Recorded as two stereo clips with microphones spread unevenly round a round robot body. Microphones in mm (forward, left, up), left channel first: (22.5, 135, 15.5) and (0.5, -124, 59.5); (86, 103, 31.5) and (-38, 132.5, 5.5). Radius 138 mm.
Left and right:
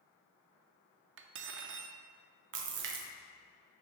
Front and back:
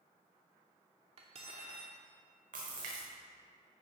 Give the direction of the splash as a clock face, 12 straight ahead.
5 o'clock.